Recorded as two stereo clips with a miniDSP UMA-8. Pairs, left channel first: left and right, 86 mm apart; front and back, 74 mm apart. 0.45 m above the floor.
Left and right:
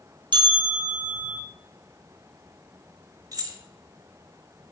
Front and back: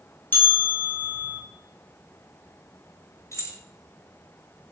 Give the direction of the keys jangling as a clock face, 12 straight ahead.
2 o'clock.